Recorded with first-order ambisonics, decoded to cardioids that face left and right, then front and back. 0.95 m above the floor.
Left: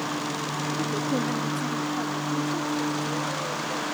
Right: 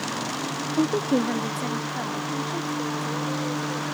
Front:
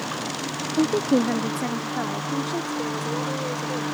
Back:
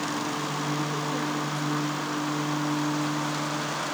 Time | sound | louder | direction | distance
0.8 | a woman speaking | right 7 dB, front 7 dB | 35° right | ?